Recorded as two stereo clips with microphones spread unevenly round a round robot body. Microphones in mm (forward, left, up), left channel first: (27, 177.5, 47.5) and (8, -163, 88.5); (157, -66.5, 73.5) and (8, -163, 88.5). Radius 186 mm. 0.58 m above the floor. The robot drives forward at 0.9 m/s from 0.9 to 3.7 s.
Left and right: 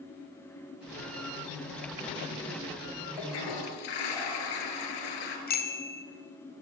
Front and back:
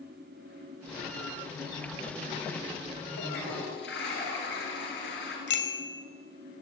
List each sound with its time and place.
3.2 s a toilet flushing: 70° left, 4.5 m; by 5.4 s 75° left, 4.5 m
5.5 s a bicycle bell: 25° left, 2 m